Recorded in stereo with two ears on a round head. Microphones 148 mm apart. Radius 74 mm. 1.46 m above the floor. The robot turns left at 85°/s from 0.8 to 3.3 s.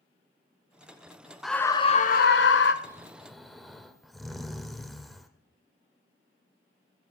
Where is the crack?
I don't hear a crack.